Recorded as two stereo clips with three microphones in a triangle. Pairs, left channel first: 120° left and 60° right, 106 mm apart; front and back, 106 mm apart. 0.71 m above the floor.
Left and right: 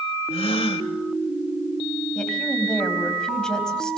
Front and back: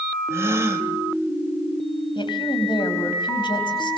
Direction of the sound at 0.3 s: 120° left.